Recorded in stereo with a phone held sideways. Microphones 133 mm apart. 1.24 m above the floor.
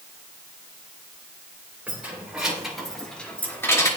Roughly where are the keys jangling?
Centre.